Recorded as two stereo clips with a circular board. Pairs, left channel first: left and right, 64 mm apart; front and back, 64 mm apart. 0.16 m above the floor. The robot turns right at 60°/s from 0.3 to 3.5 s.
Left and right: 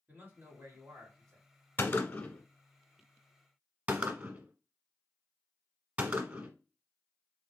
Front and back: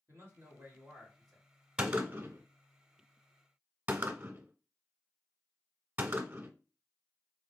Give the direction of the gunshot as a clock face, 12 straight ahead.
8 o'clock.